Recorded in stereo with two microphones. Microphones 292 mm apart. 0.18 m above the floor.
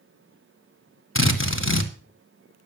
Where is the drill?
45° left (ahead or behind), 1.7 m.